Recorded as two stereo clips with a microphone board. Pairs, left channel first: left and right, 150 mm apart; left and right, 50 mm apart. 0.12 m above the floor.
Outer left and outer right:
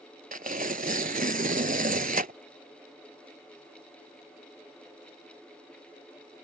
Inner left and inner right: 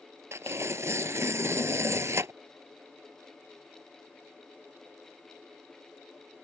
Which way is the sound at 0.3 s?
60° right (ahead or behind).